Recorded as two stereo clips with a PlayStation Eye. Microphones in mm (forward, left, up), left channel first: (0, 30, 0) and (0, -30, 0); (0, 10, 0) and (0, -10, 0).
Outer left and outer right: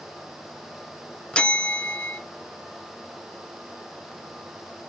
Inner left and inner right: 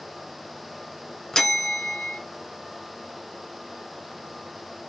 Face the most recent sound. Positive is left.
turn(degrees=20)  # may be behind; listen again after turning